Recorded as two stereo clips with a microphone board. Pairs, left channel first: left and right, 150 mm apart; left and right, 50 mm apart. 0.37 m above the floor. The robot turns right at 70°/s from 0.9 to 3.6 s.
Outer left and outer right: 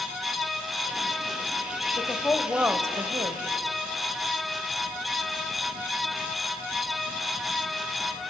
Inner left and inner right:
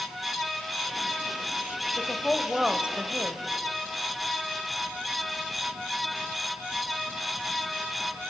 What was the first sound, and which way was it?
A woman speaking, 145° left.